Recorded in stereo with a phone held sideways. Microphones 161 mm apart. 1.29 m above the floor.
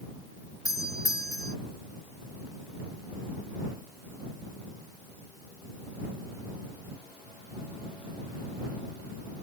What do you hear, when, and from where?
0.7 s a doorbell: 20° left (ahead or behind)